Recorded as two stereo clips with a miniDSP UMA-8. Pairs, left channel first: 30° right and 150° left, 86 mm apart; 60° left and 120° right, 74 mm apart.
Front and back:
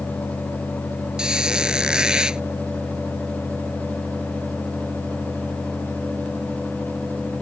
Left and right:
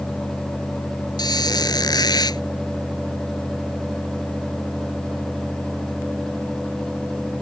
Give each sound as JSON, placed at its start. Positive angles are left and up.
{"t": 1.2, "sound": "a squeak", "azimuth_deg": 70}